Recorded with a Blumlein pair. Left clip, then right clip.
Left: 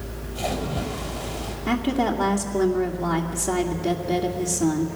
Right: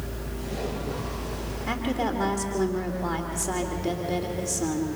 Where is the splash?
50° left, 6.5 m.